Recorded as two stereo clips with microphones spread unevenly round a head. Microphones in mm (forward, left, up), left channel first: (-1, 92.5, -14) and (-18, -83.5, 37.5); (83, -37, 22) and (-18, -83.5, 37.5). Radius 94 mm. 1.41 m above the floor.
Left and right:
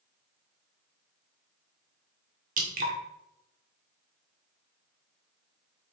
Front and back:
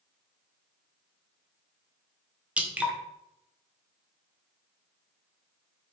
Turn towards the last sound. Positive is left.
turn(degrees=-85)